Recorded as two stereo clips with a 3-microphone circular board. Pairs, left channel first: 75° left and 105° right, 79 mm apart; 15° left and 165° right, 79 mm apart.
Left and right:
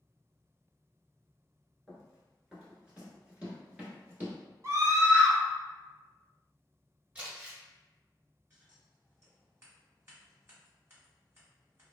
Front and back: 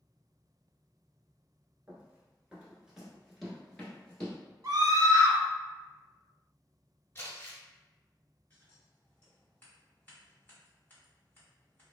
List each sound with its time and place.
1.9 s running footsteps: 170° left, 1.3 m; by 4.4 s 55° right, 1.5 m
4.6 s a scream: 150° right, 0.9 m
7.2 s crumpling: 40° right, 1.6 m
8.5 s scissors: 50° right, 1.5 m